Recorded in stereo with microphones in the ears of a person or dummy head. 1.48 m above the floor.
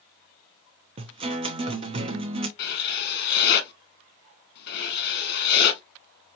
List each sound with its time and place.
1.0 s a guitar: 35° right (ahead or behind), 0.8 m
2.6 s writing: 65° left (ahead or behind), 1.2 m